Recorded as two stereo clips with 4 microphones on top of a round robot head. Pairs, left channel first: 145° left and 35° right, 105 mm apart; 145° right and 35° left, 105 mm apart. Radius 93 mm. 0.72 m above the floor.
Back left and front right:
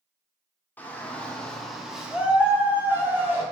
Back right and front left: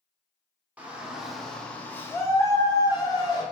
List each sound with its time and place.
0.8 s a shout: 90° left, 0.9 m; by 3.4 s 100° right, 1.4 m